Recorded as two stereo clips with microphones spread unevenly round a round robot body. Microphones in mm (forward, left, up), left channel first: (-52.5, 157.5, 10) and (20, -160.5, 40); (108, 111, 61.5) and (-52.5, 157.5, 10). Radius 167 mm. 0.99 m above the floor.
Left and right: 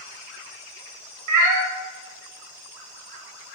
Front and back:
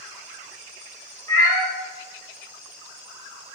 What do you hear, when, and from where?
1.3 s a cat meowing: 75° right, 0.5 m